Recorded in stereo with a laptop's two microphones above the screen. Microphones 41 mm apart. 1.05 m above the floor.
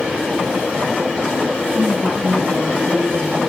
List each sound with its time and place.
1.7 s a woman speaking: 40° right (ahead or behind), 8.5 m; by 3.4 s 50° right (ahead or behind), 7.5 m